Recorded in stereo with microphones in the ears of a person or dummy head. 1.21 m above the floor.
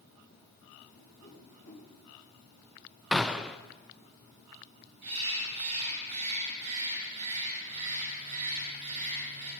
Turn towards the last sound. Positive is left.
turn(degrees=-35)  # may be behind; listen again after turning